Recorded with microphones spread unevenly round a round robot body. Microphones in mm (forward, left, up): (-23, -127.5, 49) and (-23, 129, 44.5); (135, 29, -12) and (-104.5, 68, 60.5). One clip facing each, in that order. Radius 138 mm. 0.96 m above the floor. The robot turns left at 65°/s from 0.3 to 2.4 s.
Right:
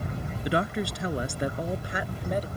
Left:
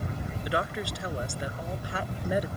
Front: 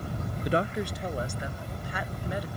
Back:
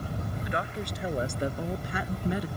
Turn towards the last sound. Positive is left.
turn(degrees=165)